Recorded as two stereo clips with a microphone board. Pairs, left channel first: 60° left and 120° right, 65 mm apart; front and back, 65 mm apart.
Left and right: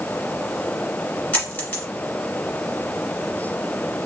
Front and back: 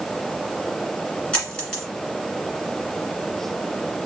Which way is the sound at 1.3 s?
65° left.